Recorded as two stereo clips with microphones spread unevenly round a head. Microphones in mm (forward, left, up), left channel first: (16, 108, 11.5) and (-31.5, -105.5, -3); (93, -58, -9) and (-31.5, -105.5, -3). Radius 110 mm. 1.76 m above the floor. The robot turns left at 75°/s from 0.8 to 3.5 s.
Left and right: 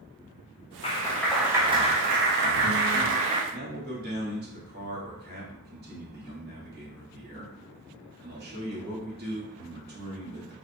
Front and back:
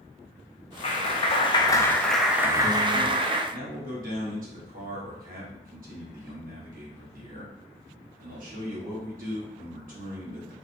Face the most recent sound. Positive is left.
turn(degrees=-150)